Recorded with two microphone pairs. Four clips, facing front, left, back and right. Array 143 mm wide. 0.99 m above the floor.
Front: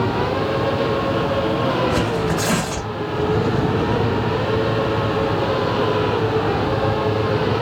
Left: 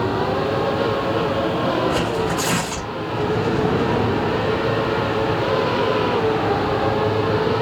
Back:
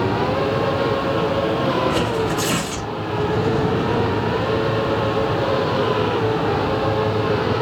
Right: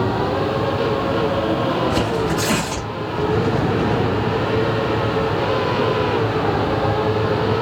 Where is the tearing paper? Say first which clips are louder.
Right 1 dB, even; straight ahead, 2 m.